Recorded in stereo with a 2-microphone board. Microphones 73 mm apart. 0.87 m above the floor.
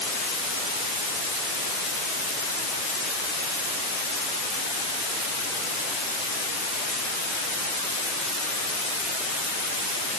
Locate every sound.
Only background noise.